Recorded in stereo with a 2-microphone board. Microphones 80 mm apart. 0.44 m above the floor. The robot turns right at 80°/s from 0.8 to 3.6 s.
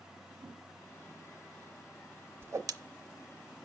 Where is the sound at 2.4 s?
30° right (ahead or behind), 0.6 m; by 2.7 s 55° right (ahead or behind), 0.6 m.